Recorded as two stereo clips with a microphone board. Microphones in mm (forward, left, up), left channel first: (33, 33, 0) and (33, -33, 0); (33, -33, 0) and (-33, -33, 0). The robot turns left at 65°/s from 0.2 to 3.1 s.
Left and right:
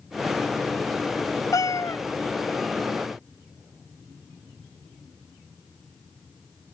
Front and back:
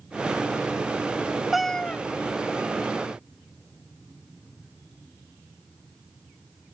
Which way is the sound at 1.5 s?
95° left.